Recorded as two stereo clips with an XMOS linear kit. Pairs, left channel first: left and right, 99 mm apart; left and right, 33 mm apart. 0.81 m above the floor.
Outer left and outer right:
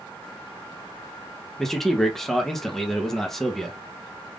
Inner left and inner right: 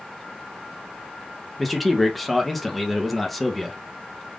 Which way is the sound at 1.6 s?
5° left (ahead or behind).